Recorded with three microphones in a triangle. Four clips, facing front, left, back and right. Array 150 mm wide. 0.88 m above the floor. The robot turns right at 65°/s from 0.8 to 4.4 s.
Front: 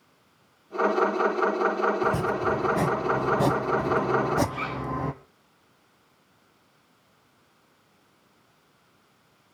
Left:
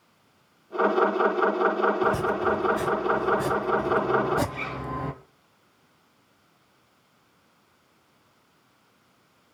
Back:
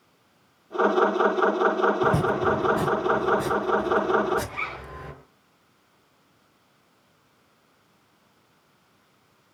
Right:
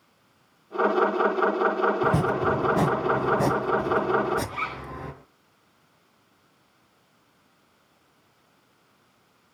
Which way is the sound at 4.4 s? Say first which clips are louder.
Right 1 dB, front 3 dB; 105° right.